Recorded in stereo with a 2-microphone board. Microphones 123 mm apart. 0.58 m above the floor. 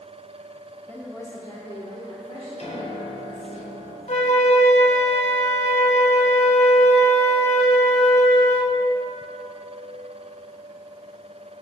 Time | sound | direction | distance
0.9 | a woman speaking | 15° left (ahead or behind) | 1.1 m
2.6 | a piano | 65° left (ahead or behind) | 1.9 m
4.1 | a flute | 70° left (ahead or behind) | 0.8 m